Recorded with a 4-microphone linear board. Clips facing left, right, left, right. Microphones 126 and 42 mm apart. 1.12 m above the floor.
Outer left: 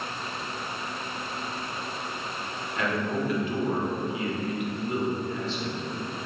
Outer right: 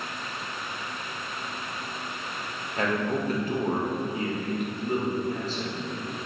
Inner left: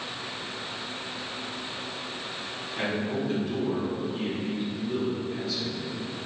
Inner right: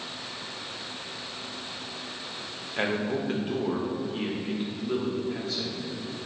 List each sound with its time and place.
2.8 s a man speaking: 40° right (ahead or behind), 0.8 m